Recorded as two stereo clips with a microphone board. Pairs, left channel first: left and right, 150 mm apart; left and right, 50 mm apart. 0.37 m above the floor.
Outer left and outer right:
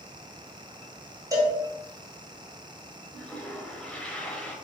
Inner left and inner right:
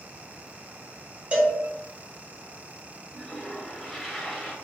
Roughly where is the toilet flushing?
Centre.